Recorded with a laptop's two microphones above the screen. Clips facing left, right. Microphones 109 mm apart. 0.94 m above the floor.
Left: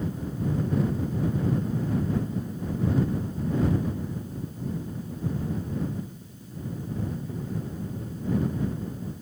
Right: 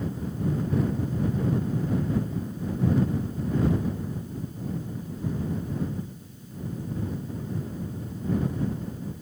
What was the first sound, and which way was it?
Only background noise.